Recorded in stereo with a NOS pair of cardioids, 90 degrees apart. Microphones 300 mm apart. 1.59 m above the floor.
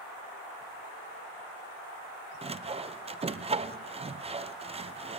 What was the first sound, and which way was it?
Sawing, 20° right.